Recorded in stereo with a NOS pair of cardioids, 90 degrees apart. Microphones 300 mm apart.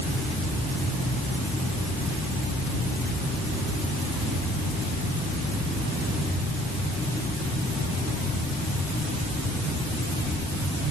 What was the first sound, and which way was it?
Only background noise.